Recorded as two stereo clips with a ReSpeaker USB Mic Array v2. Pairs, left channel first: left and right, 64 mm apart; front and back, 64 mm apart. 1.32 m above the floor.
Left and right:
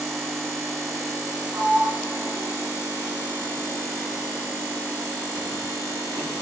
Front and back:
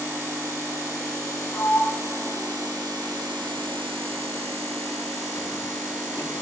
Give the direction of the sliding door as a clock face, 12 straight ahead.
1 o'clock.